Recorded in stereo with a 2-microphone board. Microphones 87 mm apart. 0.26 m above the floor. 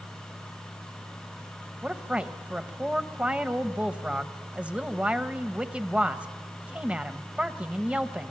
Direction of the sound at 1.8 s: 15° right (ahead or behind).